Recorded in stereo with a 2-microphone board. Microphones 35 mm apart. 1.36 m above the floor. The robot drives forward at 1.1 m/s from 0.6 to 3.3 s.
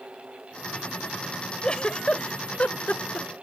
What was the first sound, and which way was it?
A giggle, 30° left (ahead or behind).